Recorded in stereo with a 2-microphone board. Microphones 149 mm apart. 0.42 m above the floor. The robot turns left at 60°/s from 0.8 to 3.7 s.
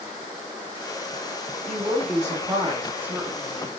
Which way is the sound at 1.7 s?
25° right (ahead or behind).